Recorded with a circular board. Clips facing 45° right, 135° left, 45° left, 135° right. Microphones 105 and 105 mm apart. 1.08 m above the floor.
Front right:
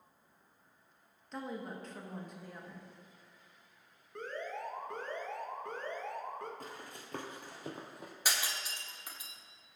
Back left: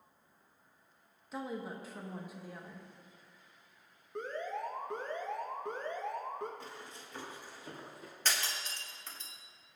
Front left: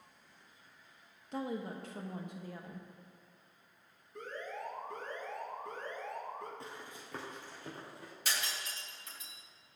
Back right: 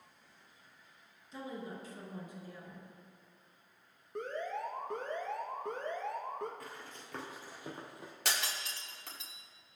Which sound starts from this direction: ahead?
Running footsteps, at 6.6 s.